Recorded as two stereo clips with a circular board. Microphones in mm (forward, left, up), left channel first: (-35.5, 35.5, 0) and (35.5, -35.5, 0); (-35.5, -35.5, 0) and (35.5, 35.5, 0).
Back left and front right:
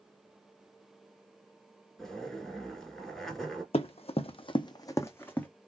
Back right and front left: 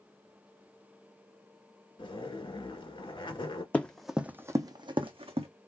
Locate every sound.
2.0 s a zipper: 140° right, 1.1 m
3.7 s running footsteps: 150° left, 0.6 m; by 5.5 s 60° left, 0.8 m